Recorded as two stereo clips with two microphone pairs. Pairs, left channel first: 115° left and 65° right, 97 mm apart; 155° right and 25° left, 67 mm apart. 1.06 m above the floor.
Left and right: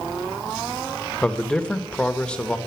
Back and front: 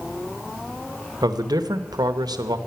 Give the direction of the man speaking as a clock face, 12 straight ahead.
11 o'clock.